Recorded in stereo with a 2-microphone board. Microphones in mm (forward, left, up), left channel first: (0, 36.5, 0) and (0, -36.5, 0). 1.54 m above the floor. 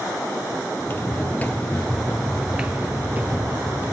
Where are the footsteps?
30° left (ahead or behind), 2.5 m; by 3.9 s 30° right (ahead or behind), 3 m.